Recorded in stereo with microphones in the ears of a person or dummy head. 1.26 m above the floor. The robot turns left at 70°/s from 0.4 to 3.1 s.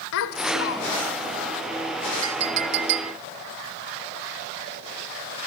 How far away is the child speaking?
About 2.5 m.